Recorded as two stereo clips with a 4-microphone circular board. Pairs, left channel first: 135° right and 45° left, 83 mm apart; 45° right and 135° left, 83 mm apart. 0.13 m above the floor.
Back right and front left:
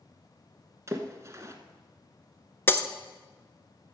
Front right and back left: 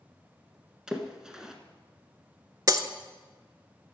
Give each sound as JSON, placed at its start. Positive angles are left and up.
{"t": 0.9, "sound": "a splash", "azimuth_deg": 60, "distance_m": 1.0}
{"t": 2.7, "sound": "breaking glass", "azimuth_deg": 165, "distance_m": 0.5}